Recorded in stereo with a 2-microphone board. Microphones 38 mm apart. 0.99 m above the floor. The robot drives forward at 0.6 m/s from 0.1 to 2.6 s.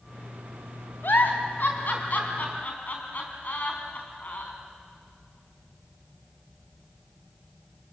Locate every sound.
1.0 s a giggle: 65° left (ahead or behind), 3 m; by 4.5 s 50° left (ahead or behind), 3.5 m